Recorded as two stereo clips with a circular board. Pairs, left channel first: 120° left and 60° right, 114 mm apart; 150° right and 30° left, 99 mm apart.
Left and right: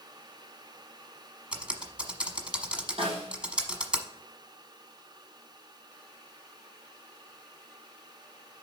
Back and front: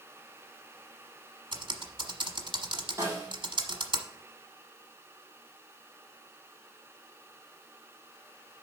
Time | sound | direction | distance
1.5 | typing on a keyboard | 20° left | 1.1 m
3.0 | a snare drum | 30° right | 4 m